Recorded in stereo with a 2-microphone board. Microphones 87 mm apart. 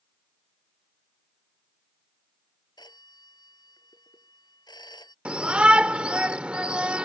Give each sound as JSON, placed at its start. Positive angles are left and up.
{"t": 2.8, "sound": "a phone ringing", "side_deg": 55}
{"t": 5.2, "sound": "a shout", "side_deg": -15}